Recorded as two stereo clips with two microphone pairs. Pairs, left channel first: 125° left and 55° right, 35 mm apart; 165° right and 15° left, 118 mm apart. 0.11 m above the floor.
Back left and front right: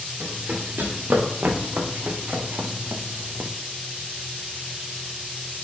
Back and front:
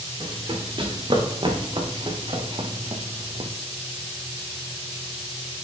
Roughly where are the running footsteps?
Ahead right.